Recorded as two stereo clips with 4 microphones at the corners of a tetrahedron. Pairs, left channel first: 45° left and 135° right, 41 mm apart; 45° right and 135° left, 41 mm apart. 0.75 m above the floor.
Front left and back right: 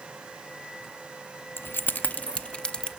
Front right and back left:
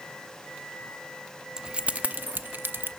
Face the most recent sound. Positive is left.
turn(degrees=115)